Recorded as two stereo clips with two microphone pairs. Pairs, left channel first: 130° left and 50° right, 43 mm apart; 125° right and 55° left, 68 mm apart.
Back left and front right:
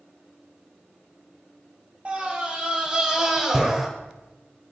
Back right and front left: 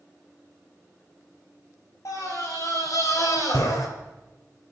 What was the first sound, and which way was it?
A scream, 105° right.